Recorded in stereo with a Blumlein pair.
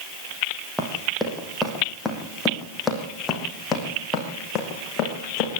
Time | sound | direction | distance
0.8 | running footsteps | straight ahead | 4 m